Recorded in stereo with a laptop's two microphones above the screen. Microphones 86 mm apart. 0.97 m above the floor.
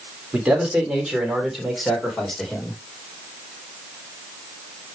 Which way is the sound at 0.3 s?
10° right (ahead or behind).